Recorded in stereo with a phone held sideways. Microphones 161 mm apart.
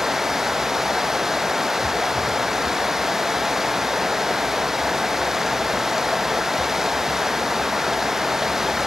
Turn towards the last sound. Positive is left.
turn(degrees=0)  # may be behind; listen again after turning